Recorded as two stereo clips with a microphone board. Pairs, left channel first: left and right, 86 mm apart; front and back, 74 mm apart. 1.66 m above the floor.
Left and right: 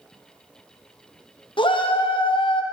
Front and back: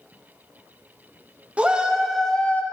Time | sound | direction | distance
1.6 | a shout | 110° left | 0.9 m